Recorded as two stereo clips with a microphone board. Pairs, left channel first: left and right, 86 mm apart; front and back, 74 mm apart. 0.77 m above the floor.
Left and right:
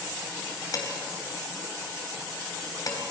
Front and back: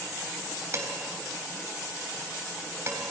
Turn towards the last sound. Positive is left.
turn(degrees=125)